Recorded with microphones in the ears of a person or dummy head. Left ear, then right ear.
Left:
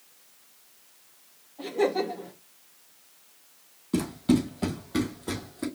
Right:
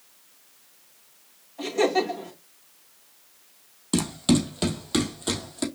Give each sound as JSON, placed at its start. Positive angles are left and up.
{"t": 1.6, "sound": "laughter", "side_deg": -65, "distance_m": 2.5}
{"t": 3.9, "sound": "running footsteps", "side_deg": -35, "distance_m": 2.0}